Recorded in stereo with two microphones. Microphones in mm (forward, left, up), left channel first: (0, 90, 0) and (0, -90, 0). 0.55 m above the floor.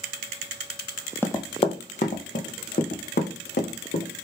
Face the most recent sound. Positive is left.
turn(degrees=65)  # may be behind; listen again after turning